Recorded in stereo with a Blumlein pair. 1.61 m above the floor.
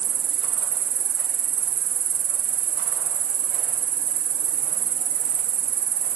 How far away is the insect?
About 1.2 m.